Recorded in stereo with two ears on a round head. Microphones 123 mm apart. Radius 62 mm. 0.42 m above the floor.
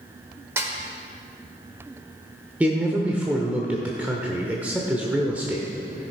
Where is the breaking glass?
No breaking glass in this recording.